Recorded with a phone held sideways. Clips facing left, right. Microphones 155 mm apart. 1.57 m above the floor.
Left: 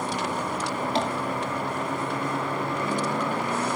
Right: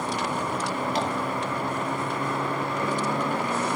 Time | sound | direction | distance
0.9 | tapping | 30° left (ahead or behind) | 2.5 m